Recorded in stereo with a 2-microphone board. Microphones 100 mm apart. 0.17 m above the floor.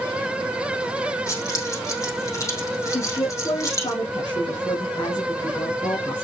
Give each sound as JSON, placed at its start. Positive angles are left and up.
{"t": 1.3, "sound": "keys jangling", "side_deg": 35, "distance_m": 4.0}
{"t": 2.9, "sound": "a woman speaking", "side_deg": 45, "distance_m": 2.5}